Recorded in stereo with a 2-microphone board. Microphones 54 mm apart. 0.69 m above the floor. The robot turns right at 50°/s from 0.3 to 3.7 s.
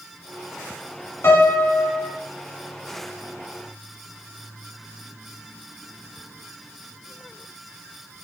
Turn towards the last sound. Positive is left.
turn(degrees=175)